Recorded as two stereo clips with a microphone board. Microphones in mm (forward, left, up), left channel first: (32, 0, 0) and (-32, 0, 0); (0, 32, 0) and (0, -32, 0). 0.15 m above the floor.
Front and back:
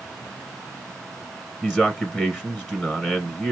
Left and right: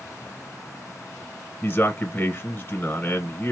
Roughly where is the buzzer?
No buzzer in this recording.